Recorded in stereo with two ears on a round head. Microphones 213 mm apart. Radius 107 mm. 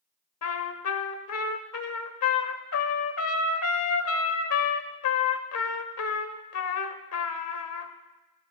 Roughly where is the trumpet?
Left.